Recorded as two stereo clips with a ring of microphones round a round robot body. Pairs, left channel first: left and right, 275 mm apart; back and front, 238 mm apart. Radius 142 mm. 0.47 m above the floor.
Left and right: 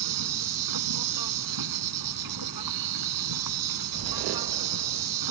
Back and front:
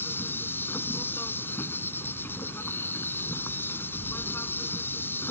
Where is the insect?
95° right.